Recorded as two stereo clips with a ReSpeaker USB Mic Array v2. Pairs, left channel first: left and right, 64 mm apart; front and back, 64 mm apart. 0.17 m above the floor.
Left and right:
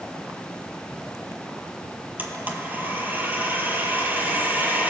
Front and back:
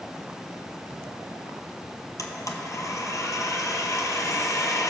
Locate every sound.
2.2 s a blender: 30° right, 1.0 m